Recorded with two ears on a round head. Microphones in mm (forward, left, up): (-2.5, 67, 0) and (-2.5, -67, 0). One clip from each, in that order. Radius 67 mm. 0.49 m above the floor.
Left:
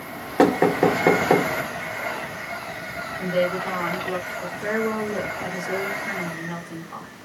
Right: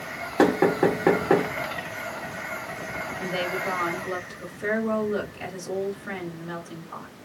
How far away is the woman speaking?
About 1.3 m.